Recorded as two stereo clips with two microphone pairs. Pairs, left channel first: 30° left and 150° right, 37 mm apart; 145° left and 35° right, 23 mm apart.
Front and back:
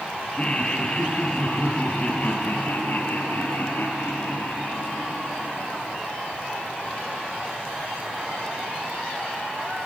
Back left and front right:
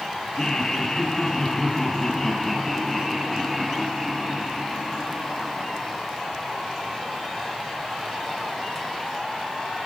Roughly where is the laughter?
Left.